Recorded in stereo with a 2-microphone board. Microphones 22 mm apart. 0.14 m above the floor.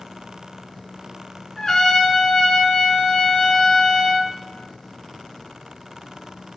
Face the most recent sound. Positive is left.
turn(degrees=25)  # may be behind; listen again after turning